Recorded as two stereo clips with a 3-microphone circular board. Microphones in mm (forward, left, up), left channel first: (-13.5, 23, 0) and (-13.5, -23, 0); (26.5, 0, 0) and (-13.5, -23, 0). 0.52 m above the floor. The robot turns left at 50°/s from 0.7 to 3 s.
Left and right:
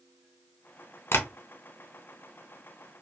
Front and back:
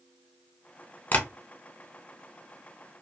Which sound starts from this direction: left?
Tapping, at 1.1 s.